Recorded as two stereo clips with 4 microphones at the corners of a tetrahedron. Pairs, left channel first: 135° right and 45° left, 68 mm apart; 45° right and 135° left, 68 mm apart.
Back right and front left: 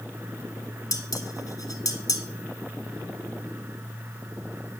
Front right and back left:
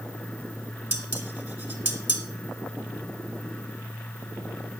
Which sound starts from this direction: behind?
Dishes clattering, at 0.9 s.